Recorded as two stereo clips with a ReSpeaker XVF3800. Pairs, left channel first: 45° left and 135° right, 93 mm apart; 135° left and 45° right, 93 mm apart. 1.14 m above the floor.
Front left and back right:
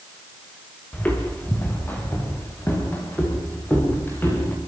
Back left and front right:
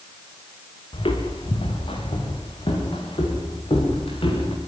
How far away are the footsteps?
About 5 m.